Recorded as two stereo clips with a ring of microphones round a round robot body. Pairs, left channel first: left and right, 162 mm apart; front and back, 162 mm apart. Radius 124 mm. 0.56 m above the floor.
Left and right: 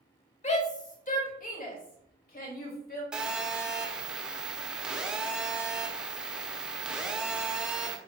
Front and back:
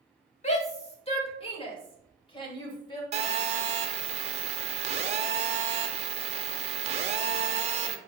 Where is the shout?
45° left, 2.0 m; by 3.0 s 65° left, 3.5 m.